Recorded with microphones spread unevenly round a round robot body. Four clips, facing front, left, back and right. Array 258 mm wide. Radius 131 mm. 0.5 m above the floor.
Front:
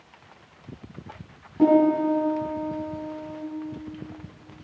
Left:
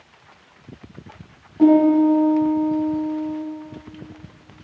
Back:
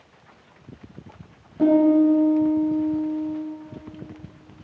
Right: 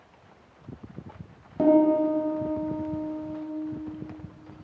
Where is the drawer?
I don't hear a drawer.